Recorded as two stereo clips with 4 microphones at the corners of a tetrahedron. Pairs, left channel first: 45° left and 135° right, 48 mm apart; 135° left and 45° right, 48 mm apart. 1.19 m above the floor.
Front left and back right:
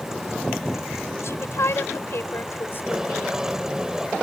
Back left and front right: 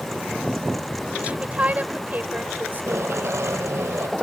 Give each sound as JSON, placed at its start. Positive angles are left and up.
{"t": 1.2, "sound": "a woman speaking", "azimuth_deg": 20}
{"t": 2.7, "sound": "tape being pulled", "azimuth_deg": -60}